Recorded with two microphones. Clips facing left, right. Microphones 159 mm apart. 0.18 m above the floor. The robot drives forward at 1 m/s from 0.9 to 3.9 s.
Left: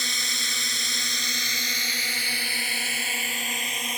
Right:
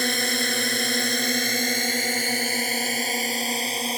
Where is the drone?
55° right (ahead or behind); by 4.0 s 30° right (ahead or behind).